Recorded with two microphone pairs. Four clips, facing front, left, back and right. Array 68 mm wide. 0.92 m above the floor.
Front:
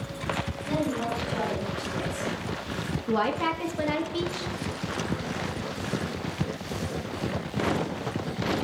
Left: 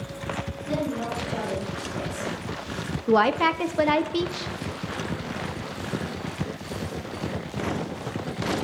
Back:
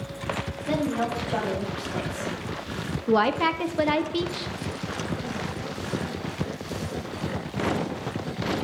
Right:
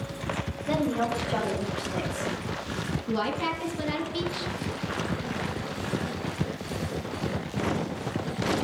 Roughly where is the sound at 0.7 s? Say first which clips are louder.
Right 2 dB, back 3 dB; behind right.